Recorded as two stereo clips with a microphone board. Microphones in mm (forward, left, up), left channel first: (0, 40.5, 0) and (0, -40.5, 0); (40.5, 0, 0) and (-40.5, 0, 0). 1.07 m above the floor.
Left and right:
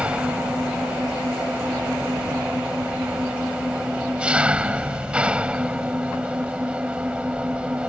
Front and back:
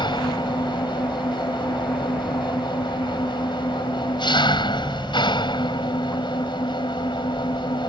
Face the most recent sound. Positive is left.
turn(degrees=-15)